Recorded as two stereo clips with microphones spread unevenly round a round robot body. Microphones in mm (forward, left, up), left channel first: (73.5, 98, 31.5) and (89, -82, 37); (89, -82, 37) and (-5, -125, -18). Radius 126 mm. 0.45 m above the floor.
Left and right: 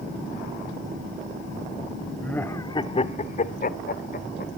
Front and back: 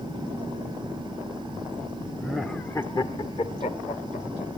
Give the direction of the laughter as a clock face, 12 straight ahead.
6 o'clock.